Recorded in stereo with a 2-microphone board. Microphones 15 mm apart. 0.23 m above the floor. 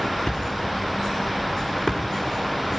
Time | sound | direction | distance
0.3 | a thud | 40° left (ahead or behind) | 4 m